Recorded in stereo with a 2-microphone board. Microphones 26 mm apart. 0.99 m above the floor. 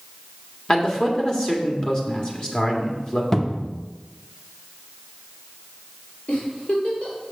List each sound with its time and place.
0.7 s a man speaking: 30° left (ahead or behind), 1.7 m
3.3 s a cupboard door: 15° left (ahead or behind), 0.7 m
6.3 s a giggle: 55° left (ahead or behind), 3 m